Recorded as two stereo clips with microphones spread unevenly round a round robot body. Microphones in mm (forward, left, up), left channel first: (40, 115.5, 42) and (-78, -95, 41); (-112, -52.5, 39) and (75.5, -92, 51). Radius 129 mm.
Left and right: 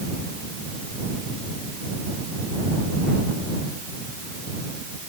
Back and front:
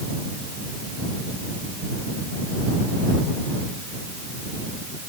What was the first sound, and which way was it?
Only background noise.